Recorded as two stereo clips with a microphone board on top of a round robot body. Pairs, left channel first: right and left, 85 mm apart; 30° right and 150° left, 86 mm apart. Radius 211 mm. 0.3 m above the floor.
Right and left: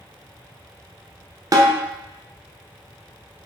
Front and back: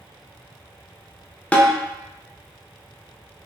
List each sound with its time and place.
1.5 s a snare drum: 45° left, 0.7 m